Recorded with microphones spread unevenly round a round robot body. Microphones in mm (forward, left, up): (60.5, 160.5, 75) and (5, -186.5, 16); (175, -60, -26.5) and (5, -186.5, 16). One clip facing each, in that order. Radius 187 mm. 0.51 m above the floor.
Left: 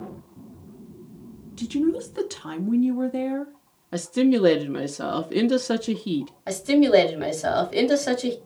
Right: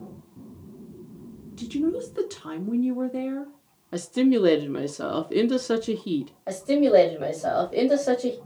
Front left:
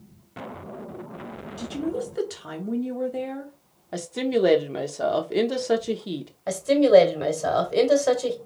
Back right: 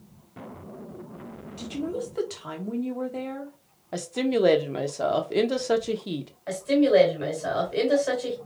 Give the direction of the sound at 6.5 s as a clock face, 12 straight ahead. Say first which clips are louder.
Left 2 dB, front left 3 dB; 11 o'clock.